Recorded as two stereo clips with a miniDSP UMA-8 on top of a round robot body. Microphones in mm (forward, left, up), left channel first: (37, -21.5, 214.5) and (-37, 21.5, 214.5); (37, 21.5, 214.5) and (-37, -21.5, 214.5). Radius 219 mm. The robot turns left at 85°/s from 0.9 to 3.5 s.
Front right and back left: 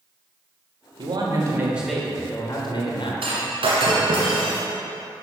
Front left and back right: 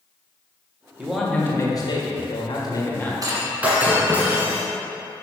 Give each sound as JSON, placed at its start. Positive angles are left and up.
{"t": 1.0, "sound": "a man speaking", "azimuth_deg": 135, "distance_m": 1.8}
{"t": 3.2, "sound": "breaking glass", "azimuth_deg": 160, "distance_m": 1.4}